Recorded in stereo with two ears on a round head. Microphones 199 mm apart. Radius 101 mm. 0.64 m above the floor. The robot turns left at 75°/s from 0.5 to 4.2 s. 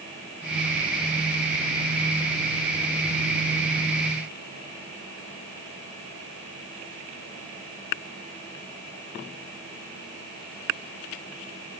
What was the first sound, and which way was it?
Only background noise.